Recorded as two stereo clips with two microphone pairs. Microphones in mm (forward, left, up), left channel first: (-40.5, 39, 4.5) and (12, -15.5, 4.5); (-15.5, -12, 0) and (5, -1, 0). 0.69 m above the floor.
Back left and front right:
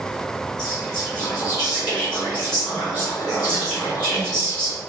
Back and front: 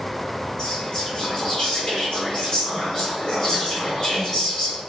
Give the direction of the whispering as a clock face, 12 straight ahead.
7 o'clock.